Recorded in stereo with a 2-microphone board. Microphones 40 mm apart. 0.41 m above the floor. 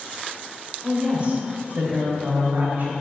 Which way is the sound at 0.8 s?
30° right (ahead or behind).